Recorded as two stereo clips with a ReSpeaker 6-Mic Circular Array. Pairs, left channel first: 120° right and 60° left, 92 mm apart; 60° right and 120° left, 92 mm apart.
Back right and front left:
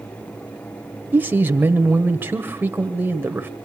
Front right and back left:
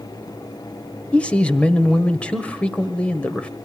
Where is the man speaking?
5° left, 1.4 m.